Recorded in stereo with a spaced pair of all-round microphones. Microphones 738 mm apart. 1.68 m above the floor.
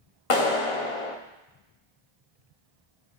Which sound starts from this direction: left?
A clap, at 0.3 s.